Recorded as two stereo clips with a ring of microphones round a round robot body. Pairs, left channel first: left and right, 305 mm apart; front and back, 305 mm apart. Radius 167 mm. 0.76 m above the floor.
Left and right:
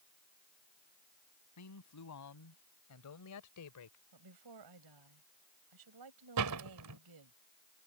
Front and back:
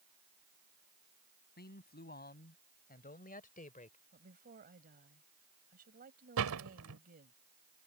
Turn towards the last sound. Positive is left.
turn(degrees=-130)